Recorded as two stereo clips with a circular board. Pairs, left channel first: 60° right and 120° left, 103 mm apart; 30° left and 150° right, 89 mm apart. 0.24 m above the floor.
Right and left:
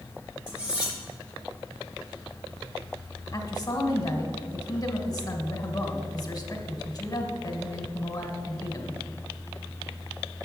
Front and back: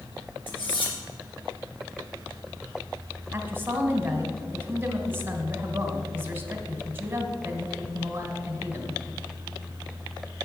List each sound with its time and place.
0.5 s cutlery clinking: 40° left, 2.5 m
3.3 s a woman speaking: 95° right, 1.5 m